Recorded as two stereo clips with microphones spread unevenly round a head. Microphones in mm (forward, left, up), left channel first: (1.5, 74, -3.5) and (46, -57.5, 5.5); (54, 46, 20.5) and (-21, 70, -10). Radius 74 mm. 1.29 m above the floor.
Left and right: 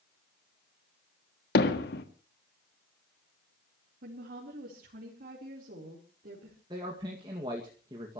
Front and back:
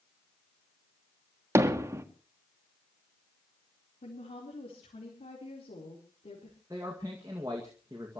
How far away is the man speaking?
About 2 m.